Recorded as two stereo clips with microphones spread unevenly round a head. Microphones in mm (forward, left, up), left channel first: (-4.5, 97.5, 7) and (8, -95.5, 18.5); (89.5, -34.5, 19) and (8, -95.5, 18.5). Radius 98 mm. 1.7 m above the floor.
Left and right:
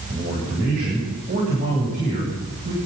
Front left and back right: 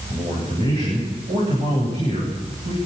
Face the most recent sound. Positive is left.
turn(degrees=-135)